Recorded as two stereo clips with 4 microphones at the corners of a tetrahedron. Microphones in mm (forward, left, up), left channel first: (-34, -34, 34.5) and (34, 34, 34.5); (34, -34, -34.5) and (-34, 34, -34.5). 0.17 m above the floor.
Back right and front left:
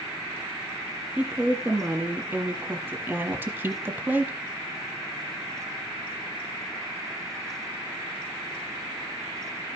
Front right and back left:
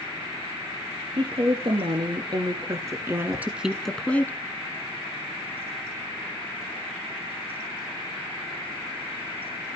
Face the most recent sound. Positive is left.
turn(degrees=-15)